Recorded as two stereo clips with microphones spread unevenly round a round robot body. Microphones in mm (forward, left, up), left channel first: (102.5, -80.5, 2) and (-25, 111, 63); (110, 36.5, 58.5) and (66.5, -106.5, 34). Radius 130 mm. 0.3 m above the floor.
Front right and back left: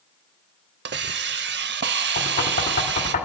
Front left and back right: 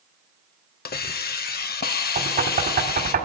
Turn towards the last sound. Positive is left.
turn(degrees=-110)